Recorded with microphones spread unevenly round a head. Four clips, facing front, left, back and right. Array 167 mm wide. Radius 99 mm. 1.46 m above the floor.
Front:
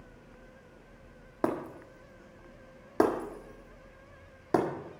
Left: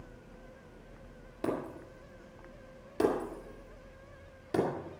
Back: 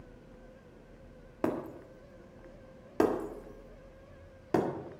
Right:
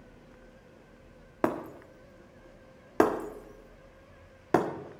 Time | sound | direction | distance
1.4 | breaking glass | 65° right | 1.8 m